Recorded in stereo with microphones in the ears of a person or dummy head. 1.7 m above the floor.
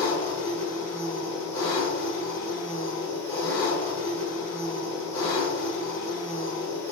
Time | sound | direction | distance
0.0 | an engine running | 20° left (ahead or behind) | 1.4 m